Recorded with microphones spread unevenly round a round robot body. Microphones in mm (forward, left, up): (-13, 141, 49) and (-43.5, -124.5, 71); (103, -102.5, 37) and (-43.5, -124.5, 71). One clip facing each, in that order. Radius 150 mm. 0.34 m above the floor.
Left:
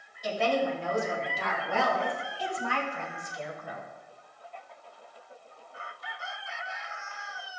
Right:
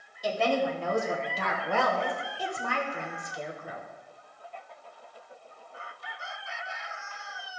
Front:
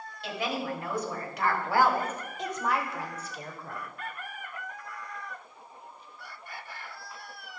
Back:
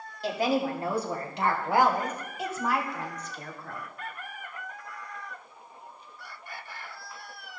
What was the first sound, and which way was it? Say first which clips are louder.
A woman speaking: right 1 dB, back 6 dB; 115° right.